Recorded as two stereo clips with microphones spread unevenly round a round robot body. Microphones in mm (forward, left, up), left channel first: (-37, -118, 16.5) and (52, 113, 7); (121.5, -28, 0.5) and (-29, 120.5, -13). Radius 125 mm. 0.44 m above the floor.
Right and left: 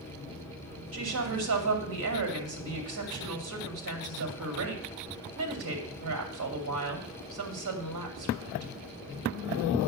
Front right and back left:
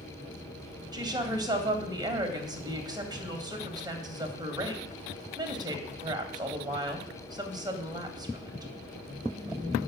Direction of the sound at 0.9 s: 65° left.